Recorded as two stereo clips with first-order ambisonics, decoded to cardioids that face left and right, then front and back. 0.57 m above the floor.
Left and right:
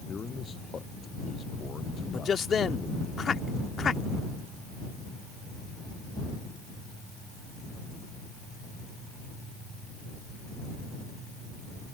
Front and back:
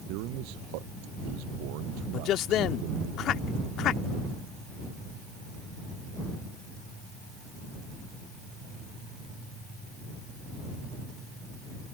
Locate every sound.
0.1 s a man speaking: 160° left
2.1 s a man speaking: 30° left